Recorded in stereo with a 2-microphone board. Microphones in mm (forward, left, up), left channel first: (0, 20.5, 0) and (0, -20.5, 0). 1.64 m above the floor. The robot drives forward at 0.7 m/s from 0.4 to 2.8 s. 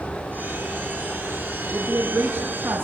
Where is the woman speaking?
70° right (ahead or behind), 2.5 m; by 2.9 s 85° right, 2.5 m.